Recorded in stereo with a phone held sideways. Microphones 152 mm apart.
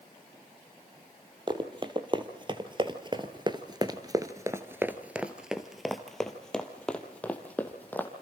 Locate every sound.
1.5 s running footsteps: 30° right (ahead or behind), 2.0 m; by 8.1 s 10° left (ahead or behind), 2.5 m